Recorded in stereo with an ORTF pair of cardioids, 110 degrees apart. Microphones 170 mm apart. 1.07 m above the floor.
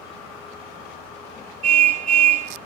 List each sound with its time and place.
1.6 s a car horn: 45° right, 5.5 m